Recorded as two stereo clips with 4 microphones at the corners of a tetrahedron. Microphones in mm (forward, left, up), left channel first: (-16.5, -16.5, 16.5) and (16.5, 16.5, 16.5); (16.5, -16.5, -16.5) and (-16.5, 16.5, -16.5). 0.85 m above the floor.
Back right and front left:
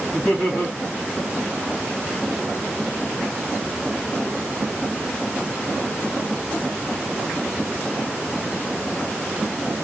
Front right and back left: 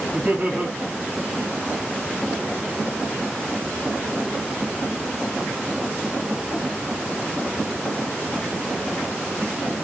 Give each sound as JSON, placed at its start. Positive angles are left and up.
{"t": 0.1, "sound": "laughter", "azimuth_deg": 180, "distance_m": 2.0}